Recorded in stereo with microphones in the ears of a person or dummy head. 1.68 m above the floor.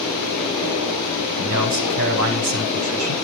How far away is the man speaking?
About 10 m.